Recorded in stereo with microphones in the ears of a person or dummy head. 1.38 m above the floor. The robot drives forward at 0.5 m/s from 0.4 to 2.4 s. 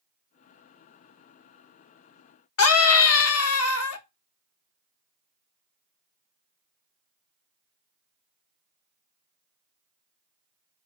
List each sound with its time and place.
2.6 s a scream: 80° left, 1.0 m